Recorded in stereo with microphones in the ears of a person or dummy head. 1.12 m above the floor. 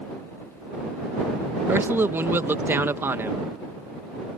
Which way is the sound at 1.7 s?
15° right (ahead or behind).